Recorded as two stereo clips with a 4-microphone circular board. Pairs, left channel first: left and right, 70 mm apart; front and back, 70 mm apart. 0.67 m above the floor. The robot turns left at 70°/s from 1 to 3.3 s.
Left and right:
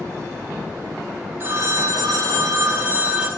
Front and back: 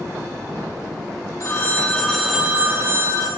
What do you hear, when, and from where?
1.4 s a phone ringing: 35° right, 1.7 m; by 3.3 s 165° right, 1.7 m